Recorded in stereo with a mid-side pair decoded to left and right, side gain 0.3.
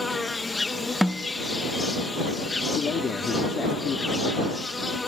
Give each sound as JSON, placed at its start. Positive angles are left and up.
{"t": 0.0, "sound": "an insect", "azimuth_deg": 30}
{"t": 1.0, "sound": "a snare drum", "azimuth_deg": 0}
{"t": 2.8, "sound": "a man speaking", "azimuth_deg": 60}